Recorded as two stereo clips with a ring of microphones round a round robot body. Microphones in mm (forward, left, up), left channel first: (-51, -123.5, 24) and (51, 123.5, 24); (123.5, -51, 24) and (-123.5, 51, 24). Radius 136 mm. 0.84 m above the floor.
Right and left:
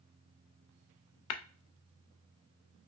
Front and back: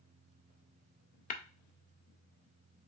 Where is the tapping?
85° right, 0.5 m.